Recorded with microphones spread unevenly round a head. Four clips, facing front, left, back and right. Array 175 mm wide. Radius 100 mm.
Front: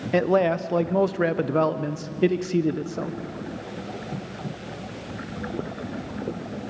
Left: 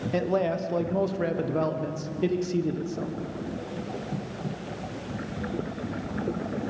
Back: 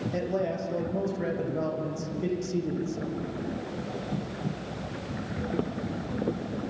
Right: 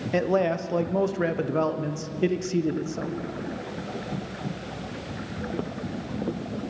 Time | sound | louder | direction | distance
0.1 | a man speaking | right 3 dB, front 11 dB | 15° right | 1.5 m